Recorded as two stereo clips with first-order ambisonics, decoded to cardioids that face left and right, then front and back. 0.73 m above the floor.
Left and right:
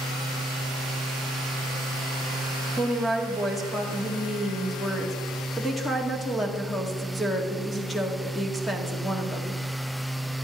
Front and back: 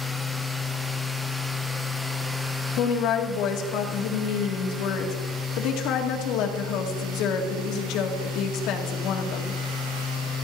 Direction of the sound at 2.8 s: 5° left.